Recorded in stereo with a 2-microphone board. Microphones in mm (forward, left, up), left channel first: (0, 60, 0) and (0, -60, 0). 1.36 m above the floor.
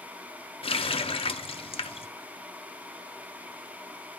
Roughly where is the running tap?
Left.